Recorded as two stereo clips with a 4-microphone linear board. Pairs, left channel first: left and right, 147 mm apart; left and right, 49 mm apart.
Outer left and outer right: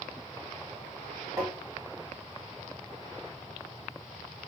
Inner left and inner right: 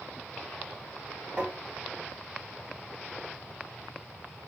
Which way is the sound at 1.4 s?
20° right (ahead or behind).